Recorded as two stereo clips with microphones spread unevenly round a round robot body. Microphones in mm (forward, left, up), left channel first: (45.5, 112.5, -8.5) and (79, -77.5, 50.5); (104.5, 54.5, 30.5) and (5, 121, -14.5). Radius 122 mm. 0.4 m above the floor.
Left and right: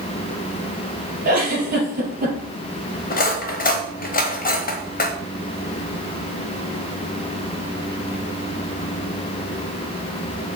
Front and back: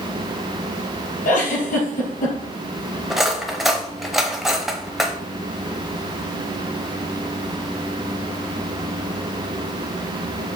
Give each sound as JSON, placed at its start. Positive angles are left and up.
{"t": 1.2, "sound": "a giggle", "azimuth_deg": -35, "distance_m": 3.5}
{"t": 3.1, "sound": "cutlery clinking", "azimuth_deg": 65, "distance_m": 1.1}